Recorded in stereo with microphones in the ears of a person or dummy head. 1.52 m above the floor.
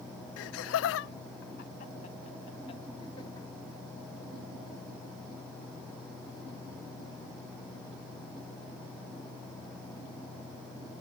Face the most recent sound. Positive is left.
turn(degrees=25)  # may be behind; listen again after turning